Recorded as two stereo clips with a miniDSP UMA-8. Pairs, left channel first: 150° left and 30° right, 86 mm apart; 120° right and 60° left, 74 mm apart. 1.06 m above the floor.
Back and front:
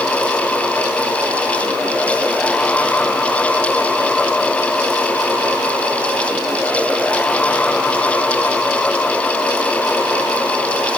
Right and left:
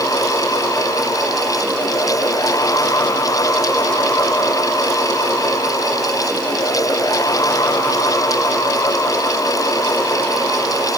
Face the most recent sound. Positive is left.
No sound to turn to.